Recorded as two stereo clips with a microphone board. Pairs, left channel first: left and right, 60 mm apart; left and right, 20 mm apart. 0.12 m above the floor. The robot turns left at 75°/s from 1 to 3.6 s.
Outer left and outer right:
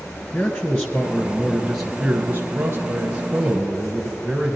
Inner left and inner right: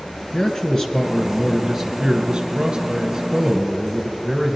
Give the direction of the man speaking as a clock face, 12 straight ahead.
11 o'clock.